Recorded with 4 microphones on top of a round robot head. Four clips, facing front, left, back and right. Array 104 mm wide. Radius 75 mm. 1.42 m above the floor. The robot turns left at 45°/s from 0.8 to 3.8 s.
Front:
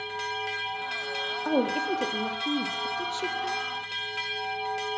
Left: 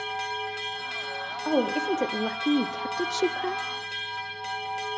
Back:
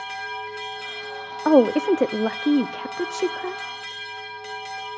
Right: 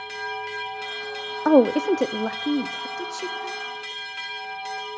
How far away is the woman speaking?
About 0.6 m.